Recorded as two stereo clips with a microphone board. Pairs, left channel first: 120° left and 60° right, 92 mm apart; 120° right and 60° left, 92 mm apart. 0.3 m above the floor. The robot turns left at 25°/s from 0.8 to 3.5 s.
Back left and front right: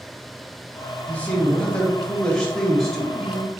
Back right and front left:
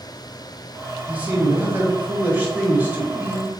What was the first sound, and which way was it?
A man speaking, 85° left.